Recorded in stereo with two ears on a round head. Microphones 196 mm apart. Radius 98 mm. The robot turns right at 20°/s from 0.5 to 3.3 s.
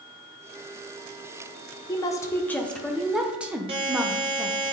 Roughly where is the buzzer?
Right.